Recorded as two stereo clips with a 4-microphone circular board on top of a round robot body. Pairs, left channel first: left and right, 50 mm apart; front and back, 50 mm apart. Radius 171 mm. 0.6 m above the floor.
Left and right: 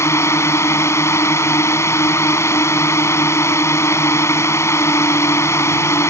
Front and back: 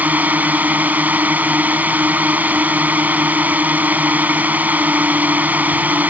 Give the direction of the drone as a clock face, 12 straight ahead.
8 o'clock.